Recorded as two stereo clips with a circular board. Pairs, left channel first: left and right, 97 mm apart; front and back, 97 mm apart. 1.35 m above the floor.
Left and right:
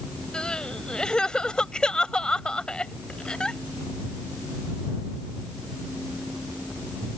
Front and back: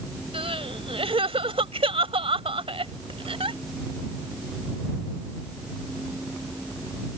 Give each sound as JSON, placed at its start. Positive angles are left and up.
{"t": 0.3, "sound": "crying", "azimuth_deg": 170}